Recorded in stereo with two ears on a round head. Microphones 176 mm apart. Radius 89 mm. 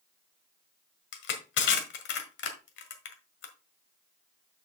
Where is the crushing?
65° left (ahead or behind), 1.6 m.